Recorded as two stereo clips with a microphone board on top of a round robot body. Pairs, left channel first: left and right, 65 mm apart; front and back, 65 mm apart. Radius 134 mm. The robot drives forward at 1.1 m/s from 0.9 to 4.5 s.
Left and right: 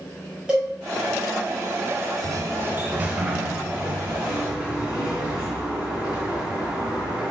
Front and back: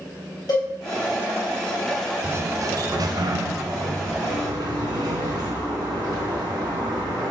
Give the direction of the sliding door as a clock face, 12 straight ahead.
4 o'clock.